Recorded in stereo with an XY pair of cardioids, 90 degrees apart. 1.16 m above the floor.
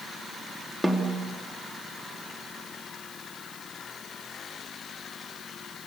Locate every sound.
0.8 s a snare drum: 5° right, 3 m